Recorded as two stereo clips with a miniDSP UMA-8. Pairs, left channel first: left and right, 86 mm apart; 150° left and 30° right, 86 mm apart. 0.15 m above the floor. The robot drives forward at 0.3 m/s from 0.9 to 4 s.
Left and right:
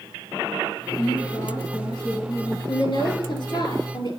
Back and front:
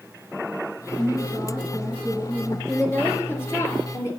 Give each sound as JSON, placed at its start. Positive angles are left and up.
{"t": 1.0, "sound": "a woman speaking", "azimuth_deg": 80, "distance_m": 2.5}
{"t": 2.7, "sound": "a woman speaking", "azimuth_deg": 85, "distance_m": 2.5}